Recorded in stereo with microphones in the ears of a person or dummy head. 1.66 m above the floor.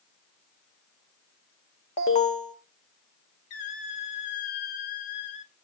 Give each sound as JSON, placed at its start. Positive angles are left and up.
{"t": 2.0, "sound": "an alarm", "side_deg": 30, "distance_m": 1.7}
{"t": 3.5, "sound": "a squeak", "side_deg": 40, "distance_m": 1.2}